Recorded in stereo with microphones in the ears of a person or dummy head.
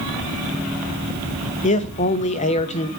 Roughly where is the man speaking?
Left.